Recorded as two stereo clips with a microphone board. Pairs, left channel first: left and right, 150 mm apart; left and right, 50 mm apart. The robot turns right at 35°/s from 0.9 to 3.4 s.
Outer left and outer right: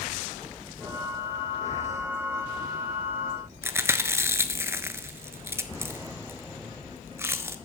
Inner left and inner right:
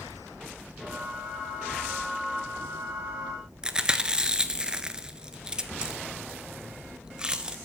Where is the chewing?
15° right (ahead or behind), 0.5 m.